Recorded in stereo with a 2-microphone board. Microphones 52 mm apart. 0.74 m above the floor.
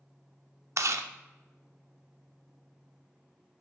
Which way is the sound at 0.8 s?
70° right (ahead or behind).